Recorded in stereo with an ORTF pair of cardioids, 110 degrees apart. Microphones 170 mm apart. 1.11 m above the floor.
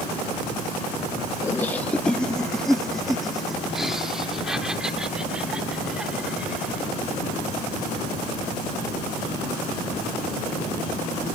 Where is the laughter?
15° left; by 6.9 s 5° right.